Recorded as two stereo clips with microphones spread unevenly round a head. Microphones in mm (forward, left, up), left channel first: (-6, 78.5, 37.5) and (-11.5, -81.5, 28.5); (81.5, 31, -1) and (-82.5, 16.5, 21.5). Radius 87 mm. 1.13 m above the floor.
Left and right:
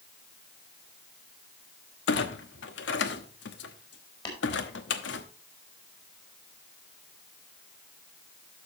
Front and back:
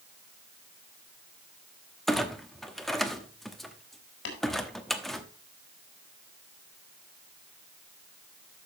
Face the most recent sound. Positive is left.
turn(degrees=20)